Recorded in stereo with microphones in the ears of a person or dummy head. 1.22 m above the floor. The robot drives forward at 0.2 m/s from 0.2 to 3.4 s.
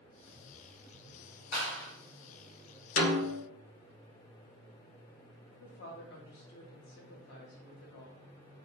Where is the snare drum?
45° left (ahead or behind), 0.6 m; by 3.4 s 50° left (ahead or behind), 0.5 m.